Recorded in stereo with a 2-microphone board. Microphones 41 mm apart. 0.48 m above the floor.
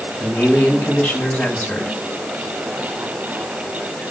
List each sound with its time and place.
0.2 s a man speaking: 65° left (ahead or behind), 6.5 m; by 2.0 s 60° left (ahead or behind), 5.5 m